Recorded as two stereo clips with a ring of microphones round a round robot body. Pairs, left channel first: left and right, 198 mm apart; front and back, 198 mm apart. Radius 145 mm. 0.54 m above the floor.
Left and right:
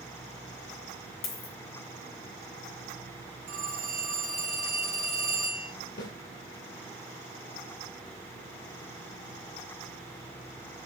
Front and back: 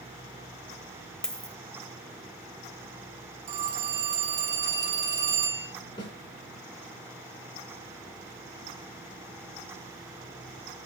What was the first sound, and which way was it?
A dropped coin, 85° left.